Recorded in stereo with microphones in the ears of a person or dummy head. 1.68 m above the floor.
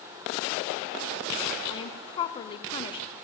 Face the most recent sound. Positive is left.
turn(degrees=25)  # may be behind; listen again after turning